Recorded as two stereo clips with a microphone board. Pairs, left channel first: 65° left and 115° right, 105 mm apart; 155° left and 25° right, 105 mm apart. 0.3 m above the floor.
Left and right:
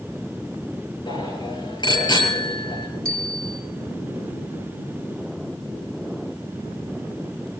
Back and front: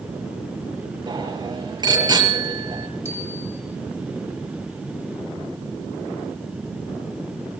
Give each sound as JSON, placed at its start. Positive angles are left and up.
{"t": 1.1, "sound": "a bicycle bell", "azimuth_deg": 25, "distance_m": 4.5}
{"t": 3.0, "sound": "a bicycle bell", "azimuth_deg": 150, "distance_m": 9.5}